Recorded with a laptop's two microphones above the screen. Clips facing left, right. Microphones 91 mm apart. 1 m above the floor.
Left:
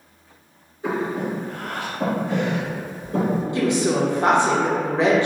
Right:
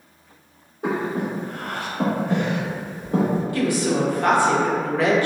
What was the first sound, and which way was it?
Breathing, 60° right (ahead or behind).